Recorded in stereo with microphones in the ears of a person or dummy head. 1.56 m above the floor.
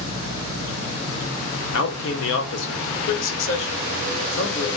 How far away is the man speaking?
About 0.8 m.